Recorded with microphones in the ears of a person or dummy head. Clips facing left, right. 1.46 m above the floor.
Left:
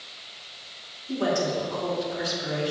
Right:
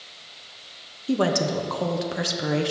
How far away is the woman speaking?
About 0.9 m.